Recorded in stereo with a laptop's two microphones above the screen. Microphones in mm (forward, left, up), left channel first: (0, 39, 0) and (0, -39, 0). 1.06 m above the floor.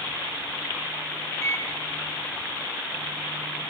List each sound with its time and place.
1.4 s a microwave: 30° left (ahead or behind), 0.5 m